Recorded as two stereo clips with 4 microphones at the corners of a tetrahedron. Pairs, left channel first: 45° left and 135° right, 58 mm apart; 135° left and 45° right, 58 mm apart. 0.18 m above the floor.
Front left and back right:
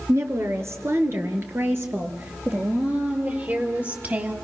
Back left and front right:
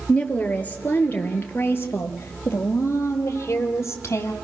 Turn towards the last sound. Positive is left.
turn(degrees=170)